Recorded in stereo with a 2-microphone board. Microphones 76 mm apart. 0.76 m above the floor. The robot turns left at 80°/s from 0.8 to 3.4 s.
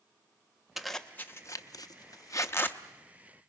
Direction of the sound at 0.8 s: 5° right (ahead or behind).